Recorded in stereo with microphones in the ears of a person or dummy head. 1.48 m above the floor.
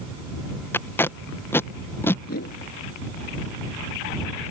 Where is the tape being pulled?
10° left (ahead or behind).